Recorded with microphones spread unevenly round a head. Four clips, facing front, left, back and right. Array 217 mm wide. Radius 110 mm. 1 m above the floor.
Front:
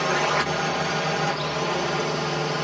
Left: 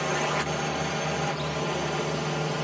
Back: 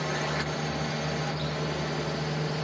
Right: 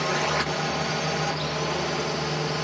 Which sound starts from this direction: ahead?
A drone, at 0.0 s.